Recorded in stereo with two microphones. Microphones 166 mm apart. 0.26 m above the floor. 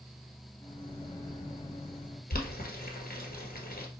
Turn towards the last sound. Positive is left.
turn(degrees=60)  # may be behind; listen again after turning